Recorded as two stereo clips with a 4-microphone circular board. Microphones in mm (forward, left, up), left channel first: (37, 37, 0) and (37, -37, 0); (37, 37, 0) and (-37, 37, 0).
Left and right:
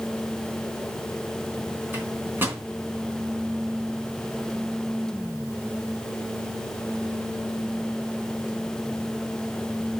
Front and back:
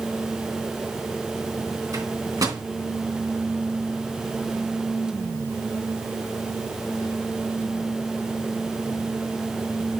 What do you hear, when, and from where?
1.9 s a microwave: 150° right, 3 m